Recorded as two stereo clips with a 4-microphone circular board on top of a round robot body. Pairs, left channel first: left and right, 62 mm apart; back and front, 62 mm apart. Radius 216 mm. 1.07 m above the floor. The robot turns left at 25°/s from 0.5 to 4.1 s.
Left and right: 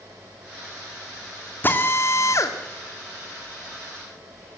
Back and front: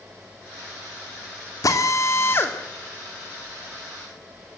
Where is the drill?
150° left, 2.5 m; by 2.5 s 125° left, 2.5 m.